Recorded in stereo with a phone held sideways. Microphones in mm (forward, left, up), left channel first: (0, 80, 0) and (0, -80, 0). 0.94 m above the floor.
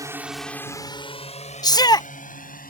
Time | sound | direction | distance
0.0 | a drone | 20° right (ahead or behind) | ?
1.6 | a shout | 25° left (ahead or behind) | ?